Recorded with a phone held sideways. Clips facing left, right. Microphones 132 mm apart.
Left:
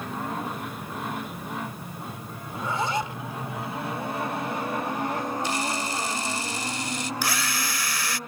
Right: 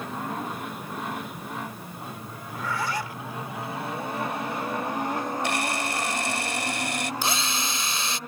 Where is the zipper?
20° left (ahead or behind).